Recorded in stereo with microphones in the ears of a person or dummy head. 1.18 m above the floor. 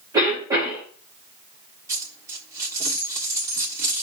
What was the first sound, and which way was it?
A cough, 20° right (ahead or behind).